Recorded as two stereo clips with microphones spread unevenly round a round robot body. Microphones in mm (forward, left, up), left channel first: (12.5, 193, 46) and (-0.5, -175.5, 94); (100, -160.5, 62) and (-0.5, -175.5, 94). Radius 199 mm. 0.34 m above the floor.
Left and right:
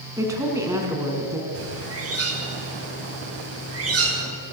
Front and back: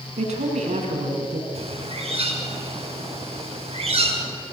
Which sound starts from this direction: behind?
A woman speaking, at 0.2 s.